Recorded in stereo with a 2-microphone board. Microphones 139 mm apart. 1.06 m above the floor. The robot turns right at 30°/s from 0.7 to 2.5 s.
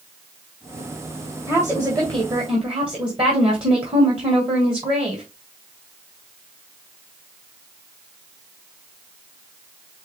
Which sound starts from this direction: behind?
A woman speaking, at 1.5 s.